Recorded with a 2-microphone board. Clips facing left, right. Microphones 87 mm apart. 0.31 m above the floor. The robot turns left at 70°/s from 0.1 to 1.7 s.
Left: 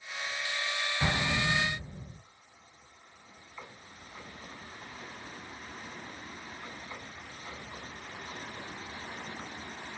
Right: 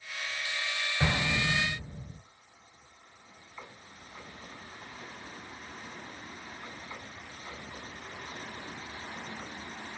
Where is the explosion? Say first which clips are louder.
Right 1 dB; 130° right, 0.9 m; by 2.2 s straight behind, 0.9 m.